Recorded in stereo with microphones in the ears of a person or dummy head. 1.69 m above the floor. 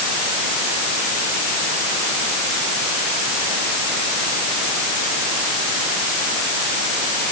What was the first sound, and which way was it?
Only background noise.